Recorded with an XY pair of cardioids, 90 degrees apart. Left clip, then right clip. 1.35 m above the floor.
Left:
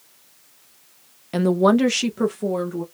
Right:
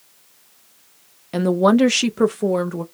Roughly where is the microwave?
No microwave in this recording.